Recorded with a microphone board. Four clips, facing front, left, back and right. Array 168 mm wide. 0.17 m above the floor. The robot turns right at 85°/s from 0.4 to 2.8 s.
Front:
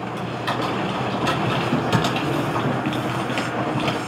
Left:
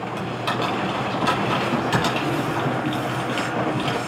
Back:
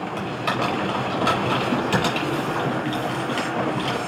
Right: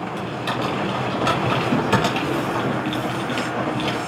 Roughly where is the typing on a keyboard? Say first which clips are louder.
Left 1 dB, back 1 dB; behind left.